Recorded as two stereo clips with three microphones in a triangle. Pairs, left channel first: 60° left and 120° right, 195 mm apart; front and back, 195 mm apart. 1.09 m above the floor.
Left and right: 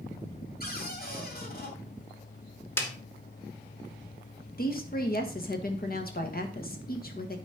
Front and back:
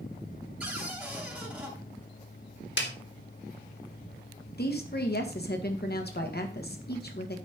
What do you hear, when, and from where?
0.6 s a cupboard door: 100° left, 2.5 m
2.8 s a snare drum: 20° right, 1.6 m
4.6 s a woman speaking: 25° left, 1.6 m